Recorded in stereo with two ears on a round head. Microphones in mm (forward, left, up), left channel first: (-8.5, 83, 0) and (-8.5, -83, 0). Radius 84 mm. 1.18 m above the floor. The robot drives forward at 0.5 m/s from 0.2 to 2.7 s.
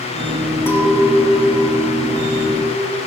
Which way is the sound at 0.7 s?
15° left (ahead or behind).